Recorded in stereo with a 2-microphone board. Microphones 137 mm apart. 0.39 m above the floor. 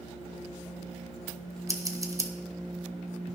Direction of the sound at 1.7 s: 25° right (ahead or behind).